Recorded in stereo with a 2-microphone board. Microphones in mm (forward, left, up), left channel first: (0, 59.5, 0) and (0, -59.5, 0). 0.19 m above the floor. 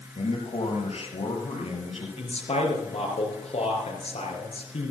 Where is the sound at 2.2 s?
65° left (ahead or behind), 4 m.